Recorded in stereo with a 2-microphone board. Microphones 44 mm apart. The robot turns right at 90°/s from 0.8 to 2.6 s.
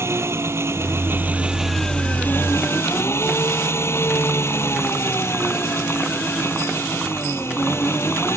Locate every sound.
0.0 s an engine running: 85° right; by 8.4 s 75° left